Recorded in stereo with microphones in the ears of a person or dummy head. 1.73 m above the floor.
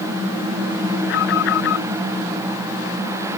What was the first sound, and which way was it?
An alarm, 65° left (ahead or behind).